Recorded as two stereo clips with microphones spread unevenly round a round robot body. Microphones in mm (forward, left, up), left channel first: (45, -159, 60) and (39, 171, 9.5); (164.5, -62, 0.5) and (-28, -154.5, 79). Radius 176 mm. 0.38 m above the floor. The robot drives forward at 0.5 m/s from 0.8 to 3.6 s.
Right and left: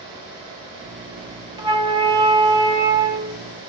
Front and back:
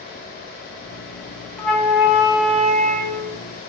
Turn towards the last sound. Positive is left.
turn(degrees=155)